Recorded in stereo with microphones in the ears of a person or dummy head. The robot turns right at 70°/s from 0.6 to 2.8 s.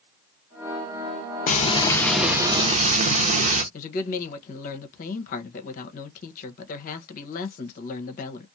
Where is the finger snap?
I don't hear a finger snap.